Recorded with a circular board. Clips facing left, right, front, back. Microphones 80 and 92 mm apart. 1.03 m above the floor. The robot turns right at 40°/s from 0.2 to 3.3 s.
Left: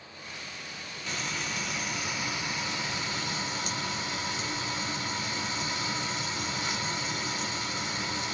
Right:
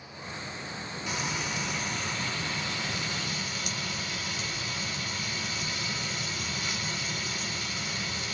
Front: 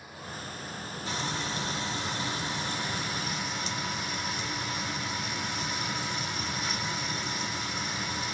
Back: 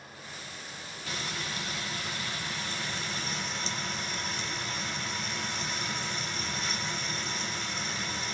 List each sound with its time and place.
1.1 s frying: 20° right, 0.9 m; by 8.3 s 70° left, 0.9 m